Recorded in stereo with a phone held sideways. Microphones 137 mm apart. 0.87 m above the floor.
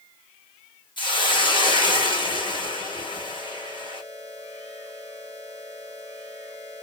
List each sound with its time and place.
1.0 s a hiss: 35° left (ahead or behind), 1.1 m